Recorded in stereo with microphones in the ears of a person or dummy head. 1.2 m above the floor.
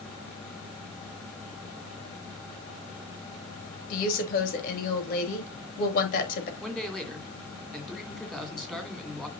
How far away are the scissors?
No scissors in this recording.